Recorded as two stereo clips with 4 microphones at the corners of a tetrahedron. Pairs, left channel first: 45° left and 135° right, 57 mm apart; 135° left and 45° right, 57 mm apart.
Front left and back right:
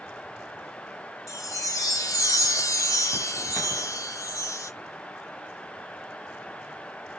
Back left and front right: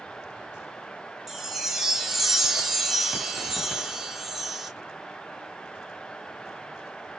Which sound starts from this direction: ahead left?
A chime, at 1.3 s.